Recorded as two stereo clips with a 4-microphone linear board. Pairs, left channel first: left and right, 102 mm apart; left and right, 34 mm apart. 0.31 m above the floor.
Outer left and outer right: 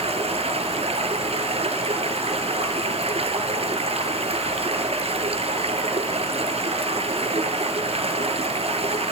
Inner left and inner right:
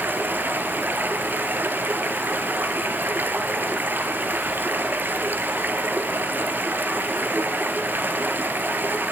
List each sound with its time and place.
0.0 s running water: 90° right, 1.4 m